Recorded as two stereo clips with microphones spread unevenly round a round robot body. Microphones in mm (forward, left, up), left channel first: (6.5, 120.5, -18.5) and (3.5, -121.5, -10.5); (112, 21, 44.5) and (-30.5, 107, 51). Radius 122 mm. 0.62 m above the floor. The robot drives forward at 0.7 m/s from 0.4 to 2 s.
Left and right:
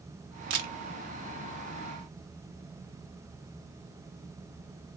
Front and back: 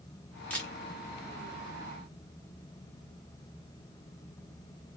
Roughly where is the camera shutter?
Right.